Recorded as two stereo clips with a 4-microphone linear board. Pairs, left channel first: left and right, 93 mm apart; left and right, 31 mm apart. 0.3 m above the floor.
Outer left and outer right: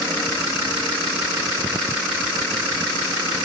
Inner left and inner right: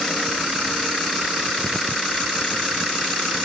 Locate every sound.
Only background noise.